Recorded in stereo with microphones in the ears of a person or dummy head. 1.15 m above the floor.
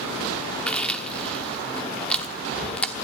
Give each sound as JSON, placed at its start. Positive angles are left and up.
{"t": 0.7, "sound": "chewing", "side_deg": 10, "distance_m": 1.2}